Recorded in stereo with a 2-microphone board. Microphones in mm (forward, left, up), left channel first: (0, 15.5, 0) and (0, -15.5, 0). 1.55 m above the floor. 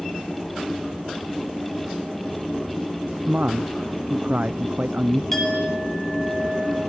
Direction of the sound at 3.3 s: 55° right (ahead or behind).